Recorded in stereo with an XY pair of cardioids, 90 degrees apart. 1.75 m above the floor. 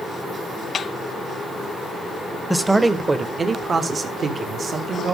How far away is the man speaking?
About 1.1 m.